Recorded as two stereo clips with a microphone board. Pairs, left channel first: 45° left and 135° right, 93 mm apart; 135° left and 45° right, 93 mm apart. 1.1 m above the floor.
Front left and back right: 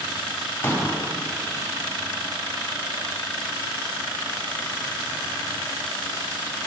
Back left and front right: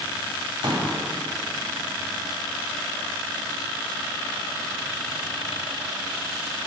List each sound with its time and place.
0.6 s a pop: 20° right, 1.5 m